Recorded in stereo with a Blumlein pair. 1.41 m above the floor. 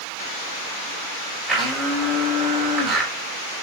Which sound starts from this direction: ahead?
A blender, at 1.5 s.